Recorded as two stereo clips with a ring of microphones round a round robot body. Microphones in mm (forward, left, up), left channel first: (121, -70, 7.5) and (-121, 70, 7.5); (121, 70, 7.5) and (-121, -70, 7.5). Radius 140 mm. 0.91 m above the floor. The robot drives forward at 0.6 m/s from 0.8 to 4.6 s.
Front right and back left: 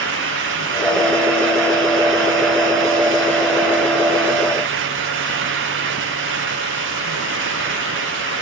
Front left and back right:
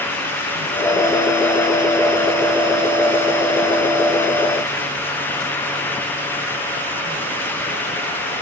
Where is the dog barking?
I don't hear a dog barking.